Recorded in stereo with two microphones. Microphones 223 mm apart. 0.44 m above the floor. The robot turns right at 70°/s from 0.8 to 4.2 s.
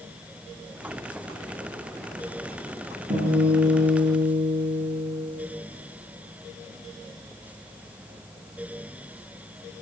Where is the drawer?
No drawer in this recording.